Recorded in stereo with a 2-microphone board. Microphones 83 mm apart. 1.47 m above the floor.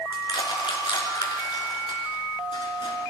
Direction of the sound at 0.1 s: 70° left (ahead or behind).